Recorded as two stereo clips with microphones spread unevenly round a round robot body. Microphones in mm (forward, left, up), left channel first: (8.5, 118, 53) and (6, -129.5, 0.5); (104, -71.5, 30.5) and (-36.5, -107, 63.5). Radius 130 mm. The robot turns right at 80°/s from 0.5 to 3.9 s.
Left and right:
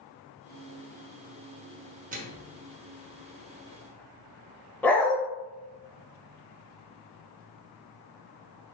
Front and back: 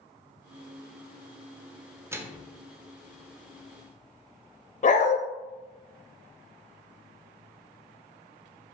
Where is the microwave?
85° right, 0.7 m; by 2.6 s 45° right, 0.7 m.